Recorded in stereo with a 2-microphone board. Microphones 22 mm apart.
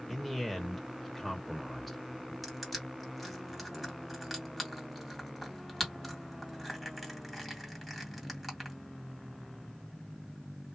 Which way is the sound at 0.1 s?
10° left (ahead or behind).